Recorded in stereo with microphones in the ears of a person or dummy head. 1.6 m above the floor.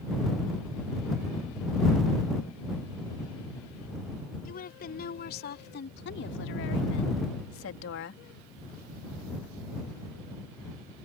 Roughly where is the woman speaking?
Left.